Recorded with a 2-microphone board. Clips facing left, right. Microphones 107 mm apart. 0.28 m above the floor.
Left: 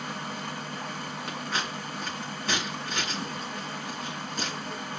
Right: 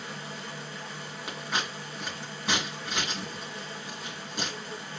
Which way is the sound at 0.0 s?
65° left (ahead or behind).